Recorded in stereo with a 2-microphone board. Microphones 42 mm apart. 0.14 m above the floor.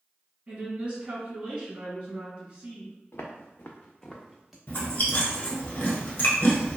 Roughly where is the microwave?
No microwave in this recording.